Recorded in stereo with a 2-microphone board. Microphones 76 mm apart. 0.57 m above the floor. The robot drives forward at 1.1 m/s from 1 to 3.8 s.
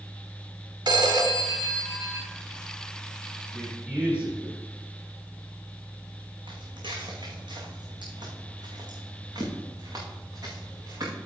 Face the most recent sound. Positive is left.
turn(degrees=-45)  # may be behind; listen again after turning